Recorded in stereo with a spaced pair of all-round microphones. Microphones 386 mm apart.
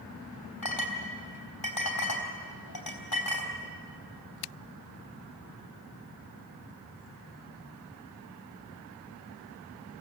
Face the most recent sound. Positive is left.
turn(degrees=65)  # may be behind; listen again after turning